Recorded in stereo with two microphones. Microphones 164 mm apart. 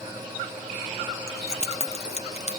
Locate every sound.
1.3 s keys jangling: 40° left (ahead or behind), 0.9 m